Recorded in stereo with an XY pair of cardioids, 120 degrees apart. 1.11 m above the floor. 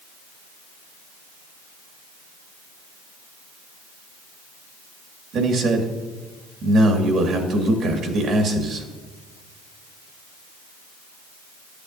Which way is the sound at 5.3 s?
55° right.